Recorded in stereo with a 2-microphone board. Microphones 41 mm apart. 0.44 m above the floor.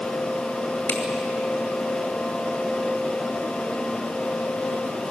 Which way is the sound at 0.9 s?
75° left (ahead or behind).